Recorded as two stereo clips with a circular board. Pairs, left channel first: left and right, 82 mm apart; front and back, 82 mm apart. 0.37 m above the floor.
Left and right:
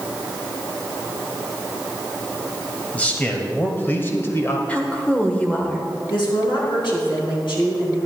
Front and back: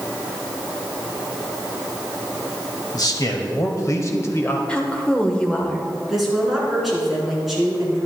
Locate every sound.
2.9 s a man speaking: 20° left, 1.7 m; by 4.6 s 50° left, 1.2 m
4.7 s a woman speaking: 50° left, 1.3 m
6.1 s a woman speaking: 90° left, 4 m